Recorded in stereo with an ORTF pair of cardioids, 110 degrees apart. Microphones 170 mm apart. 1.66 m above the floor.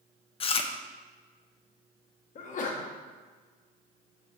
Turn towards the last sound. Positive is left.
turn(degrees=50)